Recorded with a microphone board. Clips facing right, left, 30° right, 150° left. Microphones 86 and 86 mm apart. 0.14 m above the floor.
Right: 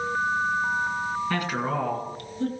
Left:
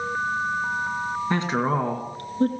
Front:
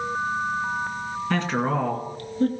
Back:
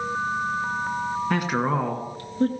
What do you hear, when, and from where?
1.3 s a woman speaking: 85° left, 1.3 m; by 2.5 s 105° left, 1.9 m